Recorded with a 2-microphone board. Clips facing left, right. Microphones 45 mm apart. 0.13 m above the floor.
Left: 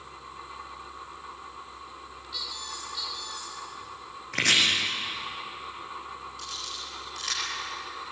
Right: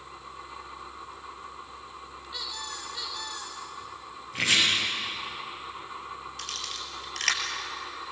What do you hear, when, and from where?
2.3 s a squeak: 25° right (ahead or behind), 5.5 m
4.3 s chopping: 65° left (ahead or behind), 6 m
6.4 s a camera shutter: 60° right (ahead or behind), 3.5 m